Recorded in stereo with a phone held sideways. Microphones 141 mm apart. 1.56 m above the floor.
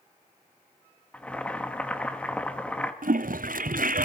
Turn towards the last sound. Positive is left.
turn(degrees=-75)  # may be behind; listen again after turning